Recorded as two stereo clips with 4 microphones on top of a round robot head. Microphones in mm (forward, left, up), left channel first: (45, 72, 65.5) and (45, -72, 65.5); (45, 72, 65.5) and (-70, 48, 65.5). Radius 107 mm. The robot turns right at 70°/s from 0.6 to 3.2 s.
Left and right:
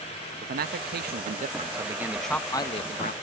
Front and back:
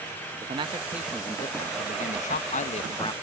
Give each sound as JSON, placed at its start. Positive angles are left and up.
{"t": 0.4, "sound": "a man speaking", "azimuth_deg": -115}